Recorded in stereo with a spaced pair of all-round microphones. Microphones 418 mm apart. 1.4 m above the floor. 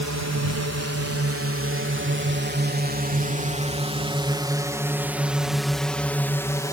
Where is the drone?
45° right (ahead or behind); by 6.7 s 10° left (ahead or behind).